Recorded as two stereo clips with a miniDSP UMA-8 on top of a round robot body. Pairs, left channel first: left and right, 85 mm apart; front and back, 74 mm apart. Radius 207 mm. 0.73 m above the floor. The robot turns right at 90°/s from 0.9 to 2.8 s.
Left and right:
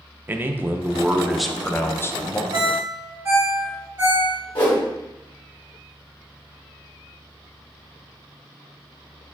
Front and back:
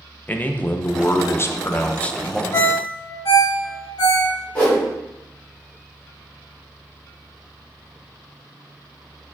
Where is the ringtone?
55° right, 0.5 m; by 4.3 s 30° right, 0.5 m.